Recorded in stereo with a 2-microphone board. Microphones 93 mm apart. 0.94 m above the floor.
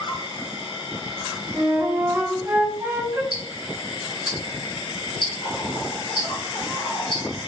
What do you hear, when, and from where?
0.0 s an insect: 65° left (ahead or behind), 0.7 m
1.5 s a flute: 25° right (ahead or behind), 1.1 m
3.3 s ticking: 50° left (ahead or behind), 1.6 m